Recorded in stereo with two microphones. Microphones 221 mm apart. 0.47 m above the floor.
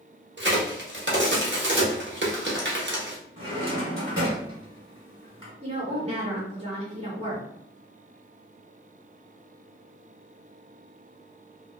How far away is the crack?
About 0.7 m.